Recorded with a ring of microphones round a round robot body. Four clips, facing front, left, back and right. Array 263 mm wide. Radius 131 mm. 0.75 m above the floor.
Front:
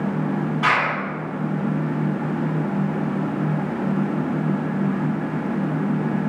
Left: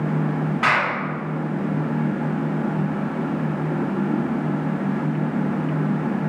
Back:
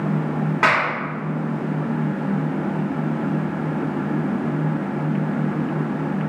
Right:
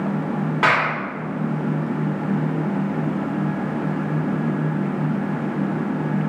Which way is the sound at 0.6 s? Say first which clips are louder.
Right 2 dB, back 2 dB; 145° right.